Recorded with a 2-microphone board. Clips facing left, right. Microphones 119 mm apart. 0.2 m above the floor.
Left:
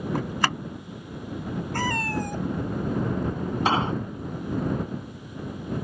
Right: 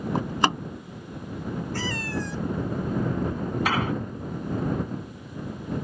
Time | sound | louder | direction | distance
0.1 | a door slam | right 4 dB | 25° right (ahead or behind) | ?
1.7 | a cat meowing | left 6 dB | 50° left (ahead or behind) | ?
3.6 | an explosion | left 3 dB | 25° left (ahead or behind) | ?